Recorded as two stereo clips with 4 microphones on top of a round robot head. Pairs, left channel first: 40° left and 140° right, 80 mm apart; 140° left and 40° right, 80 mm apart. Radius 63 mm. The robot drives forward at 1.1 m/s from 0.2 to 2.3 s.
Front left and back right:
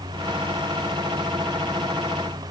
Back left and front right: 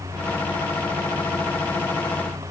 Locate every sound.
Only background noise.